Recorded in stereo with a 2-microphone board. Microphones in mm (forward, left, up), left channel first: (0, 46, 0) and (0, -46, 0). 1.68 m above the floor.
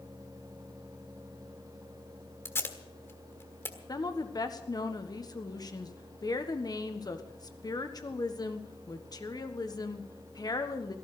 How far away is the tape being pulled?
About 1.4 m.